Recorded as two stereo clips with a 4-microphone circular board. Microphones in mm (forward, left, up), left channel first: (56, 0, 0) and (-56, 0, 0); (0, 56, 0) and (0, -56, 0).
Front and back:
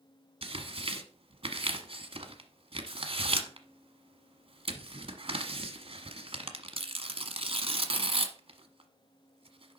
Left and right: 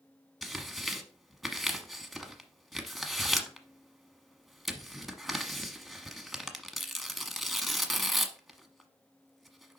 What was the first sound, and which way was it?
Tearing paper, straight behind.